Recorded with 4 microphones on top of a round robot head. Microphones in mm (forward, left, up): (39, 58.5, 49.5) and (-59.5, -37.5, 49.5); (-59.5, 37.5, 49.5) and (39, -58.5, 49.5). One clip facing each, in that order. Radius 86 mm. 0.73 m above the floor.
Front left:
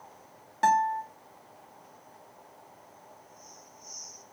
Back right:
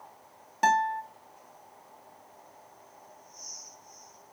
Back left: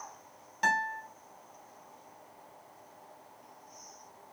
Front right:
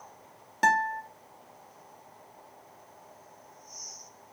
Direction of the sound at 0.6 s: 65° right.